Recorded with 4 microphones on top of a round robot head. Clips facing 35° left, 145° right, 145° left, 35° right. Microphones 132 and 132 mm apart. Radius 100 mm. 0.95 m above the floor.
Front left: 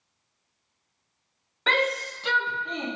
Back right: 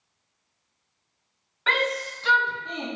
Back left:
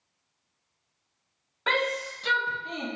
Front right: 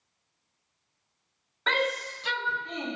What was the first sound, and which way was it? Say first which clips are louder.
A shout: front left 1 dB, back left 1 dB; 70° left.